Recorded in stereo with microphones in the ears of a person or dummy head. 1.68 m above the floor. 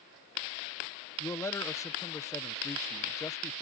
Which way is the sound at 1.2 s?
15° left (ahead or behind).